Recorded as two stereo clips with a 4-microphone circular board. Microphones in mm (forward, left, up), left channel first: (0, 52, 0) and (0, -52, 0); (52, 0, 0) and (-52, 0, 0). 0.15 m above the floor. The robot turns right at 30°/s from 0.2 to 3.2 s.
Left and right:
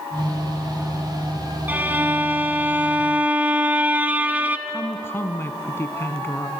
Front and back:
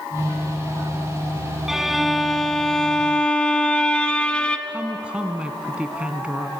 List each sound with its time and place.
1.7 s a violin: 105° right, 1.2 m; by 4.6 s 60° right, 1.2 m
4.7 s a woman speaking: 115° left, 1.1 m